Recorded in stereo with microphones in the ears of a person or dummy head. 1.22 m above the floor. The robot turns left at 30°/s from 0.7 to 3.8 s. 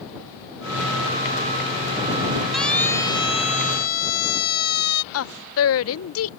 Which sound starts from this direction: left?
A woman speaking, at 5.1 s.